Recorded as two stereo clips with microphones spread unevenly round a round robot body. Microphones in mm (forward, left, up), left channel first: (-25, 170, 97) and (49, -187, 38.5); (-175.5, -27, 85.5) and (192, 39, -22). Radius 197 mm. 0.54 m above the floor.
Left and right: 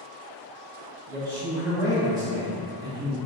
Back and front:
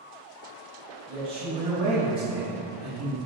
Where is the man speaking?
20° right, 1.2 m.